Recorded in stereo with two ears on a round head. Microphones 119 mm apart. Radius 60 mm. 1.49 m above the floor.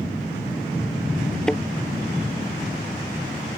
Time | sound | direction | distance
1.5 | a thud | 5° left (ahead or behind) | ?